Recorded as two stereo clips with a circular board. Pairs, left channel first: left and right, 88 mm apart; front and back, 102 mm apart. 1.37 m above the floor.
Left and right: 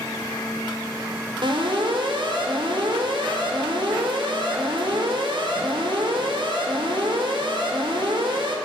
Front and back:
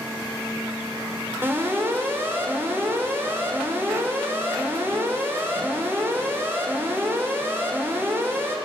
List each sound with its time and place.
1.4 s an alarm: 110° right, 5 m